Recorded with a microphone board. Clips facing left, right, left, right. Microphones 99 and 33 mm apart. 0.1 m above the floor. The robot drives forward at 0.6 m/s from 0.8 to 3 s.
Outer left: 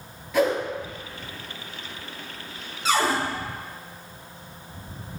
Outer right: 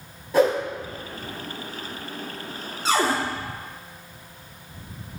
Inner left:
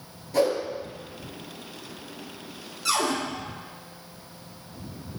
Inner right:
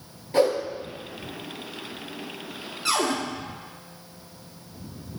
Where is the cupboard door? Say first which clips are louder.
Outer right 1 dB, inner right 1 dB; 35° right (ahead or behind), 0.8 m.